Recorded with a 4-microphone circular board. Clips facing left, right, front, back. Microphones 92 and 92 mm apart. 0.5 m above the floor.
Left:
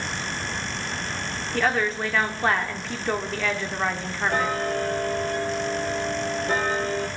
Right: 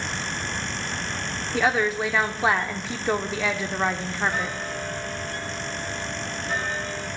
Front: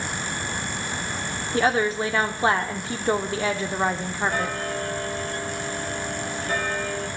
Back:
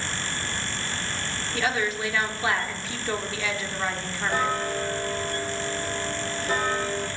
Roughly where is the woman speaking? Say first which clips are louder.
Right 1 dB, front 6 dB; ahead.